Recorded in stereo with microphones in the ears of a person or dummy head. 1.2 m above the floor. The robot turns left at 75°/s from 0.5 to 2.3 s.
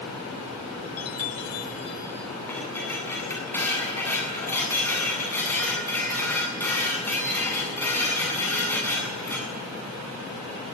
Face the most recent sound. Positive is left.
turn(degrees=15)  # may be behind; listen again after turning